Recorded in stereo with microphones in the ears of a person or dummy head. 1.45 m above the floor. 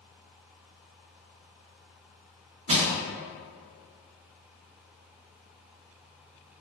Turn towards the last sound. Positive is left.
turn(degrees=-30)  # may be behind; listen again after turning